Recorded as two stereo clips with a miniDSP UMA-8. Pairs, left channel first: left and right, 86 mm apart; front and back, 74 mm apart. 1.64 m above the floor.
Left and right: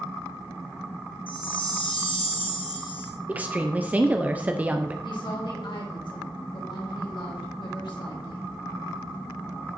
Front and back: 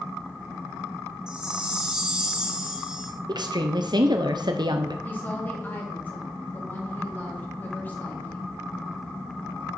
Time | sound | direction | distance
1.3 | a chime | 100° left | 1.7 m
3.3 | a woman speaking | 165° right | 0.7 m
5.0 | a woman speaking | 65° left | 3 m